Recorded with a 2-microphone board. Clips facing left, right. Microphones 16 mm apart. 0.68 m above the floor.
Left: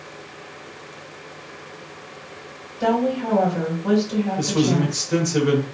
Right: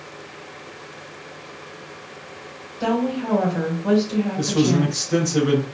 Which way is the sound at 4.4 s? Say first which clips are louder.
Right 1 dB; 30° left (ahead or behind).